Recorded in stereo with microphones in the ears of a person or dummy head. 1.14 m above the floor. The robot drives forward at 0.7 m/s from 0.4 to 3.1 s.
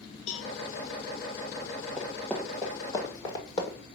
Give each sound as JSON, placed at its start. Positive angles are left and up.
{"t": 0.3, "sound": "a cowbell", "side_deg": 40, "distance_m": 0.6}
{"t": 2.0, "sound": "running footsteps", "side_deg": -5, "distance_m": 1.2}